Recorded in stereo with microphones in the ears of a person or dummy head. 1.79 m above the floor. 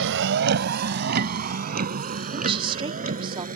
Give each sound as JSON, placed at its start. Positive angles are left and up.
{"t": 0.0, "sound": "a vehicle", "side_deg": -65}
{"t": 2.3, "sound": "a woman speaking", "side_deg": -30}